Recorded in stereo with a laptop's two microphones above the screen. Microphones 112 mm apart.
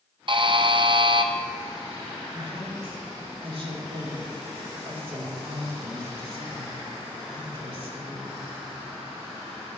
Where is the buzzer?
50° right (ahead or behind), 0.6 m.